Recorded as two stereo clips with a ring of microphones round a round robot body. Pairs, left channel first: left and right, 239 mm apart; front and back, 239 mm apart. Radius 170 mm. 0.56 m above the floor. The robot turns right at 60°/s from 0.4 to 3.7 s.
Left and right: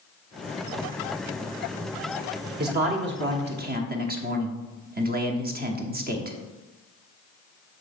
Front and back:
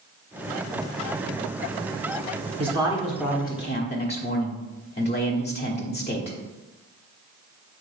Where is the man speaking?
125° right, 1.1 m; by 6.4 s 55° right, 1.1 m.